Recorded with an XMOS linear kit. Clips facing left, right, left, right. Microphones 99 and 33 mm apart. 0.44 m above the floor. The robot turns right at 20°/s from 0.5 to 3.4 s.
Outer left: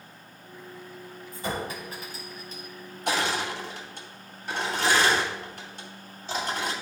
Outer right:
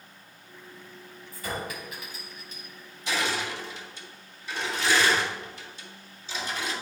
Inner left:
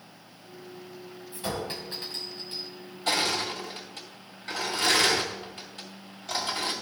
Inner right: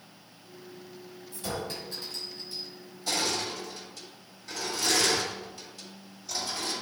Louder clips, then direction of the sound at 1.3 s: Outer left 2 dB, inner left 2 dB; 25° left (ahead or behind).